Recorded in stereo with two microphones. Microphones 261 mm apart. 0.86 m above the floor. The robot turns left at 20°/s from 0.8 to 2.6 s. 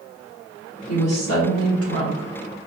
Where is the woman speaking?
80° left, 1.8 m; by 2.3 s 55° left (ahead or behind), 1.8 m.